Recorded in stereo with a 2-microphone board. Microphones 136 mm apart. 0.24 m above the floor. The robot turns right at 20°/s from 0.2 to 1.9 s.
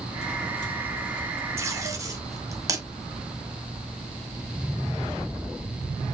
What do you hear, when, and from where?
1.6 s tape being pulled: 20° right (ahead or behind), 1.2 m; by 2.8 s 25° right (ahead or behind), 1.2 m